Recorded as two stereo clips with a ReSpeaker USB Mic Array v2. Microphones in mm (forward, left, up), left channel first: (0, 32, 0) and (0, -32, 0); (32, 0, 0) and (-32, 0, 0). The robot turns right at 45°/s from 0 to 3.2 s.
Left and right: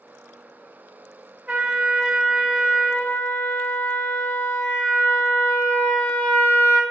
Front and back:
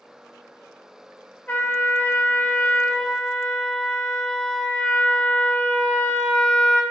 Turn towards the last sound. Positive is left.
turn(degrees=55)